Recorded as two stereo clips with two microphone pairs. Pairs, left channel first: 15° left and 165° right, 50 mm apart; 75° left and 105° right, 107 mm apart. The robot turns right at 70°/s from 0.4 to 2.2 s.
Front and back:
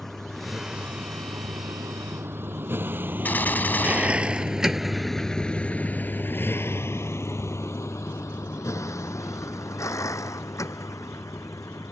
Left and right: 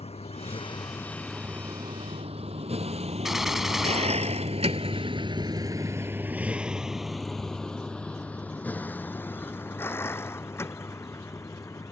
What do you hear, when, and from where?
0.0 s a vehicle: 95° left; by 11.9 s 15° left
3.2 s a gunshot: 15° right